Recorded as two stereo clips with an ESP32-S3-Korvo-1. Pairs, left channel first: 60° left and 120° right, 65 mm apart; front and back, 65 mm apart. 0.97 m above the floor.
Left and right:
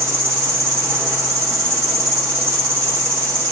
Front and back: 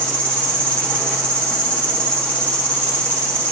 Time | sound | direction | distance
0.0 | an insect | 70° right | 1.6 m